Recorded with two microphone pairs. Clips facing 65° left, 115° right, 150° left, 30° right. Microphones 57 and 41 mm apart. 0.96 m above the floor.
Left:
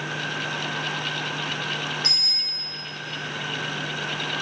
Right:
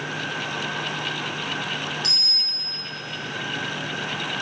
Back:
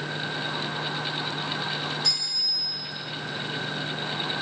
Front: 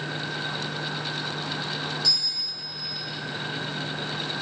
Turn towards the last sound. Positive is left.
turn(degrees=115)